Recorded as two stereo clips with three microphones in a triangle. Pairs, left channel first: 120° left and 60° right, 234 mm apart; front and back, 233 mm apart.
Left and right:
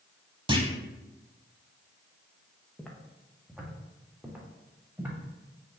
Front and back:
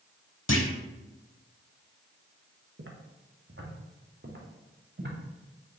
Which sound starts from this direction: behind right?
Footsteps, at 2.8 s.